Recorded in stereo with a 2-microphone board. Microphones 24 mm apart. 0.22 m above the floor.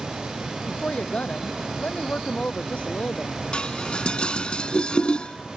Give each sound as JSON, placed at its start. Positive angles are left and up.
{"t": 0.7, "sound": "a woman speaking", "side_deg": 65}
{"t": 3.5, "sound": "dishes clattering", "side_deg": 45}